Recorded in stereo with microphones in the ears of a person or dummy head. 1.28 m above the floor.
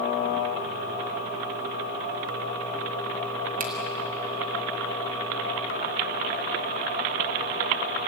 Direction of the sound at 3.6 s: 45° right (ahead or behind).